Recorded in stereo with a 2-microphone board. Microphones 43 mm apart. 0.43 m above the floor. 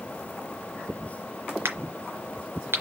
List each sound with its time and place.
1.6 s a crack: 75° right (ahead or behind), 3 m